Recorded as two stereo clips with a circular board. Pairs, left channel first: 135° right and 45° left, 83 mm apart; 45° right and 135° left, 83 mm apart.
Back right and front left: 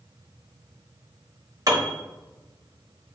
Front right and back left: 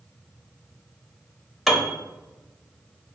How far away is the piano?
About 0.6 m.